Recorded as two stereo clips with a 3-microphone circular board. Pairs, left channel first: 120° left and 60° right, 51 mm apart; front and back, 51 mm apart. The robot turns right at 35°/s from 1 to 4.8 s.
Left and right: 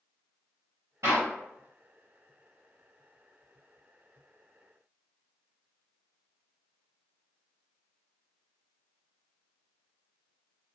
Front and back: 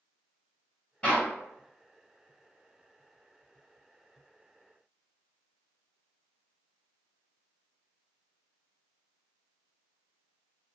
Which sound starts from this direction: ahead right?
A clap, at 1.0 s.